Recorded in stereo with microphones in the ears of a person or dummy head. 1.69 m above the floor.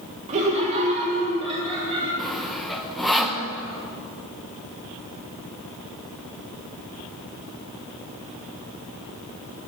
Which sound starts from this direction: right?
Laughter, at 0.3 s.